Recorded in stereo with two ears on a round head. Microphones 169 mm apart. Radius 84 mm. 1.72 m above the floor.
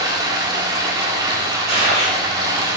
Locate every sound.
0.0 s running water: 20° right (ahead or behind), 1.3 m
1.7 s a gunshot: 40° right (ahead or behind), 3.5 m